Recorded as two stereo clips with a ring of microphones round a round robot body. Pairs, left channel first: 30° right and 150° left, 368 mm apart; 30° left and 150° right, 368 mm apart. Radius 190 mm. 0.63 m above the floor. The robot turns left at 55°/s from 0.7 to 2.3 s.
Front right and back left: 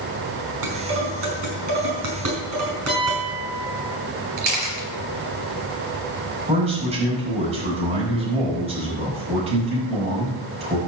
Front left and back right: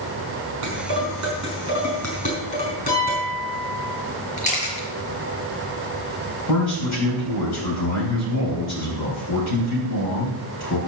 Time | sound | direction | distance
0.6 | dishes clattering | 175° right | 5 m
2.9 | a piano | 75° left | 5.5 m
4.4 | a camera shutter | 100° left | 4 m
6.5 | a man speaking | 75° left | 5 m